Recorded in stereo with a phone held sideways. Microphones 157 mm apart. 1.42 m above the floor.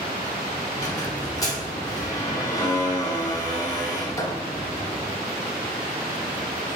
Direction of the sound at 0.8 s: 20° left (ahead or behind).